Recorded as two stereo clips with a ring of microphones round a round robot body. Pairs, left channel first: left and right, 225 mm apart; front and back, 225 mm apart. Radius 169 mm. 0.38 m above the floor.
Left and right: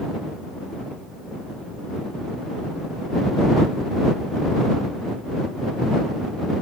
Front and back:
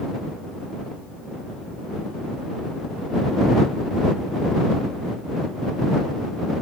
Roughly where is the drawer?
I don't hear a drawer.